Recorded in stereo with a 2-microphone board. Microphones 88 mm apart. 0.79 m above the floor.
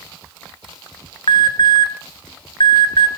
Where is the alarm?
65° left (ahead or behind), 1.7 m.